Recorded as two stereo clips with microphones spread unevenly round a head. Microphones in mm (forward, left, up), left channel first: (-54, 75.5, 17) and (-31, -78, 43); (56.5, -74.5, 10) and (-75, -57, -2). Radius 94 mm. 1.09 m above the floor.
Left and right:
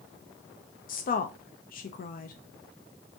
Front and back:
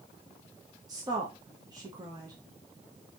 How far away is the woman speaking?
About 0.6 m.